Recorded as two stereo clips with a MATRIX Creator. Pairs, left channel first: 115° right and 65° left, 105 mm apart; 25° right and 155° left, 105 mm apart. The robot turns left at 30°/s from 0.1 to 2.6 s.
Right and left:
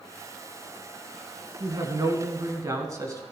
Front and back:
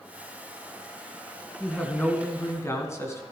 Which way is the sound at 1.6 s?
55° left.